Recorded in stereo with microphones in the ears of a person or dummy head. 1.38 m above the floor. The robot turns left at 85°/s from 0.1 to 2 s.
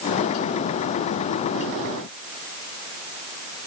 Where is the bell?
I don't hear a bell.